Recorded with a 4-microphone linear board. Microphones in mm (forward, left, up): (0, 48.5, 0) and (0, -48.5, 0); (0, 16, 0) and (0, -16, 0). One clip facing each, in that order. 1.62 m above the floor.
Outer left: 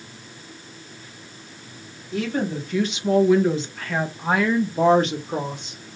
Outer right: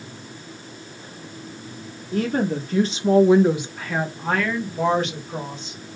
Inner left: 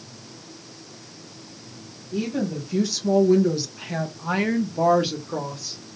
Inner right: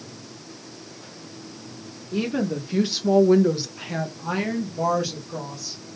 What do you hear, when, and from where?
2.1 s a woman speaking: 50° right (ahead or behind), 1.3 m; by 5.8 s 60° left (ahead or behind), 1.0 m